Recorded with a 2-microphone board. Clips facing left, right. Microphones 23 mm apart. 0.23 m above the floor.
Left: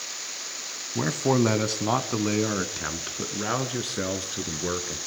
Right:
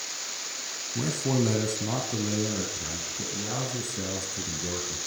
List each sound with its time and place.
0.9 s a man speaking: 45° left (ahead or behind), 2 m; by 5.0 s 55° left (ahead or behind), 4 m